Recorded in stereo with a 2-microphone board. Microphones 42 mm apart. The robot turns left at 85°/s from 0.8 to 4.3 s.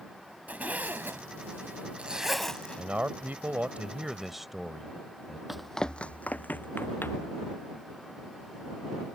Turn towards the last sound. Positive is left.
turn(degrees=60)  # may be behind; listen again after turning